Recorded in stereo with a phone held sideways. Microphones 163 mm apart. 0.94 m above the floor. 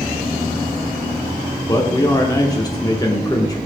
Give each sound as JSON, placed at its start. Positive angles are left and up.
{"t": 1.7, "sound": "a man speaking", "side_deg": 25, "distance_m": 0.6}